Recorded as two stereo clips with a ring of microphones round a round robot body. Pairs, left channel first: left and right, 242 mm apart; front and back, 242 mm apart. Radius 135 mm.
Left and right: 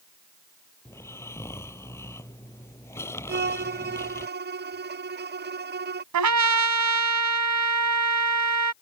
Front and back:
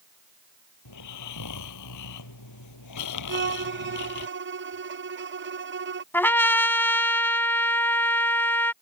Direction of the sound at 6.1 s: 80° right.